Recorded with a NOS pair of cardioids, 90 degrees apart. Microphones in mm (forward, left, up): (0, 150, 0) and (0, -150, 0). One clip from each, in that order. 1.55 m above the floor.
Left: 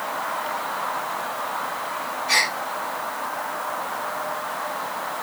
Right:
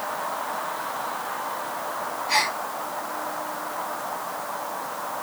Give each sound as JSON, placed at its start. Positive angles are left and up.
{"t": 2.3, "sound": "a gasp", "azimuth_deg": 70, "distance_m": 4.5}